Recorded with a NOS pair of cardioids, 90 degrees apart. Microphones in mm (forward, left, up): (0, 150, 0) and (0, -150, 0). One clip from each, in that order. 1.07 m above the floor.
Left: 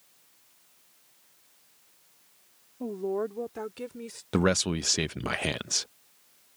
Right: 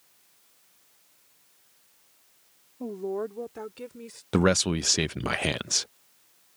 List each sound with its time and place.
2.8 s a woman speaking: straight ahead; by 4.2 s 15° left
4.3 s a man speaking: 10° right